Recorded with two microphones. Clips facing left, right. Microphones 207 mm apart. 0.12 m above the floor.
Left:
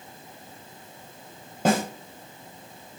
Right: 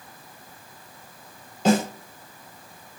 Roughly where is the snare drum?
Left.